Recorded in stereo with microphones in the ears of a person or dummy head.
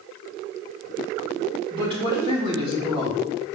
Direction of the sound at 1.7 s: 30° right (ahead or behind).